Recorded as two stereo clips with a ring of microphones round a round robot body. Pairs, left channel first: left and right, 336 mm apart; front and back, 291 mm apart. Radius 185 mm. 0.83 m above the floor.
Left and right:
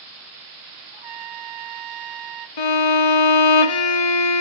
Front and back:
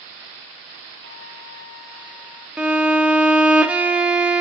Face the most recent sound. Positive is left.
turn(degrees=95)